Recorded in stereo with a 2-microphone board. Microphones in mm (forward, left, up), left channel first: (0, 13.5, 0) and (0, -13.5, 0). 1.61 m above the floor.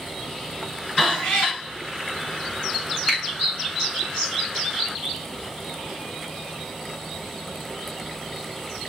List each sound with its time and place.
1.0 s a cat meowing: 45° left (ahead or behind), 2.5 m
3.1 s a finger snap: 10° left (ahead or behind), 2.0 m